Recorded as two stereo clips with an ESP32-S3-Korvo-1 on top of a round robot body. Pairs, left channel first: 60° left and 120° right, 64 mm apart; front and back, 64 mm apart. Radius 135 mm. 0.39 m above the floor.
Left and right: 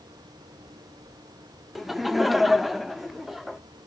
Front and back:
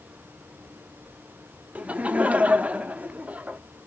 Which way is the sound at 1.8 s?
155° left.